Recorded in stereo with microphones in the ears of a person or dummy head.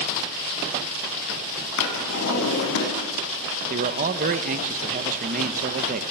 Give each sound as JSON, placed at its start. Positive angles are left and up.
{"t": 1.8, "sound": "a drawer", "side_deg": 70, "distance_m": 6.5}
{"t": 3.7, "sound": "a man speaking", "side_deg": -45, "distance_m": 1.4}